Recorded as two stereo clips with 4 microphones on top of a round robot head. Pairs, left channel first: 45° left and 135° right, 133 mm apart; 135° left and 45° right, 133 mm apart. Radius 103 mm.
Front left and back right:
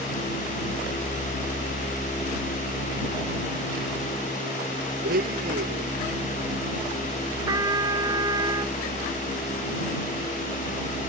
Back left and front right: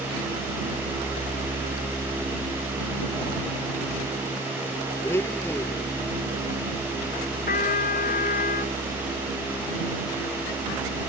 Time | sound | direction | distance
5.0 | a blender | 150° right | ?
7.5 | a trumpet | 160° left | ?